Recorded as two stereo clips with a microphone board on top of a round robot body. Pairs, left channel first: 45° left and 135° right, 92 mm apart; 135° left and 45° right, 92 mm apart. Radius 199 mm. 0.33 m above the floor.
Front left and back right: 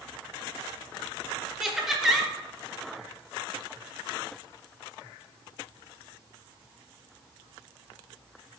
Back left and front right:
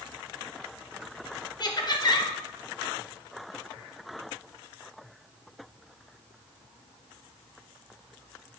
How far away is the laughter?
About 1.1 m.